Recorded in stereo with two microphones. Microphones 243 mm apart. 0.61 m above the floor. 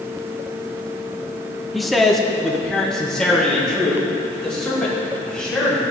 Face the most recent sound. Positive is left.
turn(degrees=5)  # may be behind; listen again after turning